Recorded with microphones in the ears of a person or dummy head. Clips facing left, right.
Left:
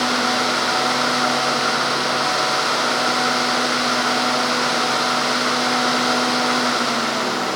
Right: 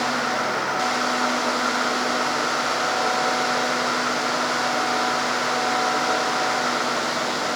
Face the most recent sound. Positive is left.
No sound to turn to.